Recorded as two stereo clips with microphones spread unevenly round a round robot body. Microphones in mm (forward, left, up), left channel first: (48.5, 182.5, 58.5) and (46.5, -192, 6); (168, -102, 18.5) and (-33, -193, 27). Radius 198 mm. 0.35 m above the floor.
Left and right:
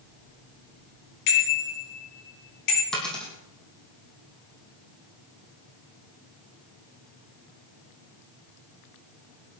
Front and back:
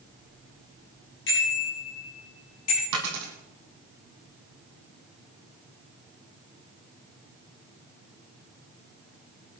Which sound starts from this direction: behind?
A dropped coin, at 2.9 s.